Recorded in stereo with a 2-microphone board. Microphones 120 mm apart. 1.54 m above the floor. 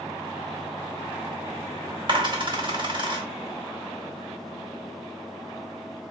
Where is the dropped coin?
40° right (ahead or behind), 1.4 m.